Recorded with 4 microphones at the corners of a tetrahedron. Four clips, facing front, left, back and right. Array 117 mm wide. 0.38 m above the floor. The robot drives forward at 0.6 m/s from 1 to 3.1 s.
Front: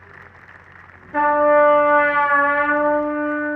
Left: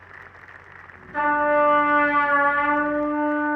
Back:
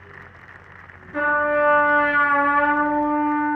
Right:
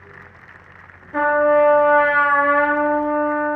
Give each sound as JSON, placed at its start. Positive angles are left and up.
{"t": 1.1, "sound": "a trumpet", "azimuth_deg": -45, "distance_m": 4.5}